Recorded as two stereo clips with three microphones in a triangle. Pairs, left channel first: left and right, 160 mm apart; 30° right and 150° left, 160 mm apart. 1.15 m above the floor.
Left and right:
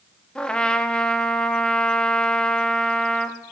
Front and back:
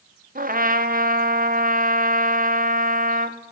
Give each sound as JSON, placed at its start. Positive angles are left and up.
{"t": 0.3, "sound": "a trumpet", "azimuth_deg": 175, "distance_m": 0.5}